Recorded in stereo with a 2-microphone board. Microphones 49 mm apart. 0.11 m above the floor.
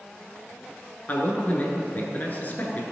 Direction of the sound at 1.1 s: 35° left (ahead or behind).